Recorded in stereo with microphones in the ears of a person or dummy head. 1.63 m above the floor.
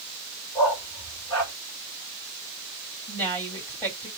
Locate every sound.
0.6 s a dog barking: 10° left (ahead or behind), 3 m
3.1 s a woman speaking: 10° left (ahead or behind), 3 m